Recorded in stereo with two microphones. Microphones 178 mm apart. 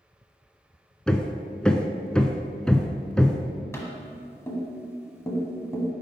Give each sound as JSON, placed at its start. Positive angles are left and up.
{"t": 1.1, "sound": "hammering", "side_deg": 5, "distance_m": 0.5}
{"t": 3.7, "sound": "tapping", "side_deg": 15, "distance_m": 1.4}